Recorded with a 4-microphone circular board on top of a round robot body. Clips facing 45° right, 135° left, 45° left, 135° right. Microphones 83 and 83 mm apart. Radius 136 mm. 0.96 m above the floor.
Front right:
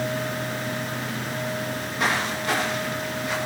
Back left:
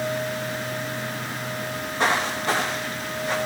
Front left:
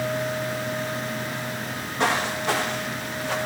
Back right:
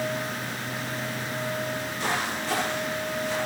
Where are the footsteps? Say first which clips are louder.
Back left 4 dB, front left 4 dB; 75° left, 9.5 m; by 3.4 s 85° left, 10.5 m.